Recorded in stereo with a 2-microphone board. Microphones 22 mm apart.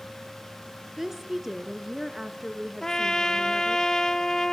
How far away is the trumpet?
About 0.9 m.